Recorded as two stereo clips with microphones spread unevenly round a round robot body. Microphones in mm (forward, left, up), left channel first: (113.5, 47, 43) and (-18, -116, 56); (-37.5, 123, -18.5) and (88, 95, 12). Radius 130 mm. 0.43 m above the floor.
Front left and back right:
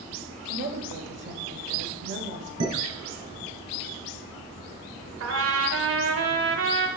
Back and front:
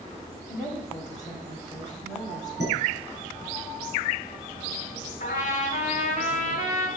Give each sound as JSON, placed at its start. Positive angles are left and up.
{"t": 0.5, "sound": "a woman speaking", "azimuth_deg": -110, "distance_m": 1.7}
{"t": 2.6, "sound": "dishes clattering", "azimuth_deg": -130, "distance_m": 5.0}
{"t": 5.2, "sound": "a trumpet", "azimuth_deg": -150, "distance_m": 1.3}